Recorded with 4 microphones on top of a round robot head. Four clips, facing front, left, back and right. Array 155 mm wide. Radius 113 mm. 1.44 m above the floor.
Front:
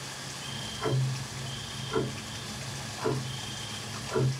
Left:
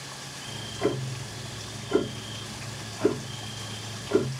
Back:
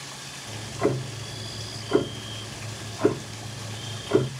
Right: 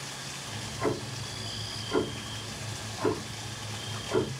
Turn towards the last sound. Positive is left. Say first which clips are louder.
# left 3 dB, back 8 dB
turn(degrees=160)